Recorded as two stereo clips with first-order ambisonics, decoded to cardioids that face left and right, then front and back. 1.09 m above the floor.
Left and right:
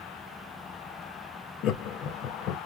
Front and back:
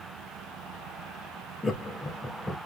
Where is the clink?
No clink in this recording.